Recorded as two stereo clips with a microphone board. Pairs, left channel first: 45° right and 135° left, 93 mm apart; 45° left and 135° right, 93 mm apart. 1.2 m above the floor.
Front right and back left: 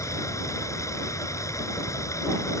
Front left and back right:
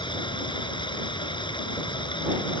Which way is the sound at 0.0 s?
10° left.